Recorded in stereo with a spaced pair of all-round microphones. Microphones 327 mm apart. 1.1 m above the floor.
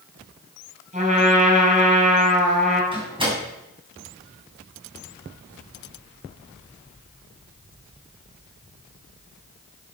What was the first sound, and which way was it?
A trumpet, 20° right (ahead or behind).